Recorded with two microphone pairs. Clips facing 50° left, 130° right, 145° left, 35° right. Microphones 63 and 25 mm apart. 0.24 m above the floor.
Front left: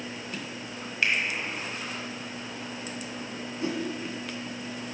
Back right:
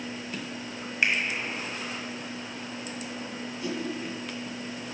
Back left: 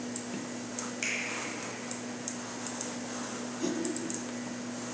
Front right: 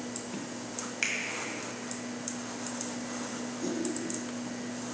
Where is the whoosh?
100° left, 0.7 m.